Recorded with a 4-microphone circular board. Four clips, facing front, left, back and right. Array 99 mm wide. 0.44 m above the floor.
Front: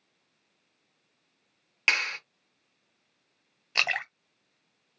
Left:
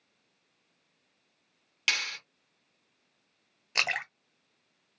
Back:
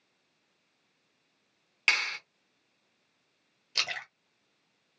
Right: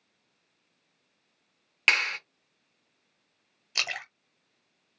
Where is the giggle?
I don't hear a giggle.